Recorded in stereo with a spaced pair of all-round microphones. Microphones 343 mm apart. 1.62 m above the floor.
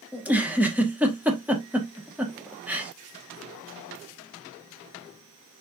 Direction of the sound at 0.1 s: 5° right (ahead or behind).